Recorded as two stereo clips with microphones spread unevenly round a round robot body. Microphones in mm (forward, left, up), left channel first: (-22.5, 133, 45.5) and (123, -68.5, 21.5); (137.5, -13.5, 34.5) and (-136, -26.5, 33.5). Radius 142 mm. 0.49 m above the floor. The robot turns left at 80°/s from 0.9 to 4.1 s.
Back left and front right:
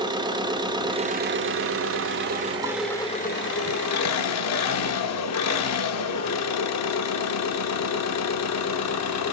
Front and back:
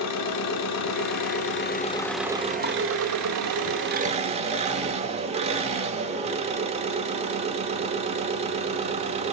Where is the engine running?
15° left, 1.0 m; by 9.3 s 120° left, 1.0 m.